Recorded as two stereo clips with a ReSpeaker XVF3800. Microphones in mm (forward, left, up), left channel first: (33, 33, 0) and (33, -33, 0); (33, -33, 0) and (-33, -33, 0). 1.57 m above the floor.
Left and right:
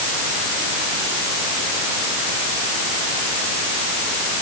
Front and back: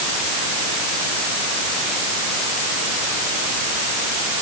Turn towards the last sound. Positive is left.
No sound to turn to.